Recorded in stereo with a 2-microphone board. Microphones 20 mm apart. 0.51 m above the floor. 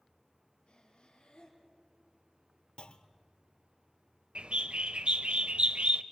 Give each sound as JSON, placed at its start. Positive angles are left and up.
{"t": 0.7, "sound": "breathing", "side_deg": 65, "distance_m": 3.5}
{"t": 2.8, "sound": "a clunk", "side_deg": 60, "distance_m": 0.7}
{"t": 4.3, "sound": "a bird", "side_deg": -70, "distance_m": 0.6}